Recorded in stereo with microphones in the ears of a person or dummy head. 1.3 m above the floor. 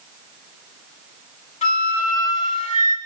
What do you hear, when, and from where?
1.6 s a flute: 35° left (ahead or behind), 2 m